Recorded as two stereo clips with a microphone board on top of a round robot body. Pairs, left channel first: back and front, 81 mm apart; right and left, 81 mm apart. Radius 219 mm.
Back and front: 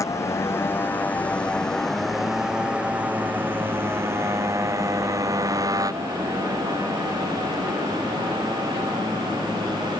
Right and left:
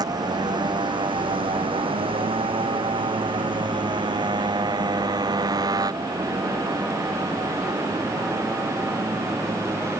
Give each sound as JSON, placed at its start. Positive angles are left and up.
{"t": 0.0, "sound": "a motorcycle", "azimuth_deg": 130}